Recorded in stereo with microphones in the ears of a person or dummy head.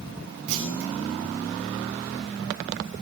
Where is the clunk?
65° right (ahead or behind), 5 m.